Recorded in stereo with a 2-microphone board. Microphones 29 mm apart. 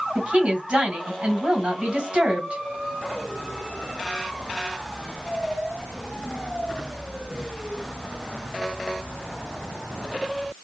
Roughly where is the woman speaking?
Right.